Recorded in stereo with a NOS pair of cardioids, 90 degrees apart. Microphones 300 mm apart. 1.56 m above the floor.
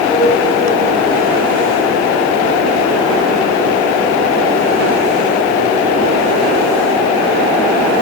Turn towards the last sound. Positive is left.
turn(degrees=5)